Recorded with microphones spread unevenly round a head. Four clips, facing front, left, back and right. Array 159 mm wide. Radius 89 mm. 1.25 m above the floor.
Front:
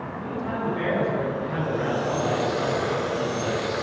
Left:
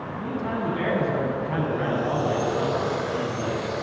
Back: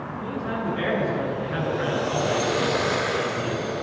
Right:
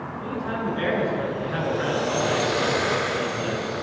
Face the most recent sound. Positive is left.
turn(degrees=75)